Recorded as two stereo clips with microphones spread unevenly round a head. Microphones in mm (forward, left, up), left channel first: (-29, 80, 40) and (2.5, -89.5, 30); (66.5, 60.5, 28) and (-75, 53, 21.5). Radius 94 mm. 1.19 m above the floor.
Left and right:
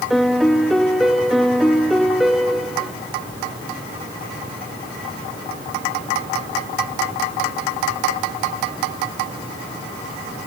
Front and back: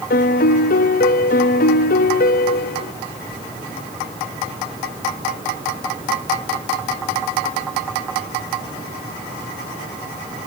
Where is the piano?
10° left, 0.8 m.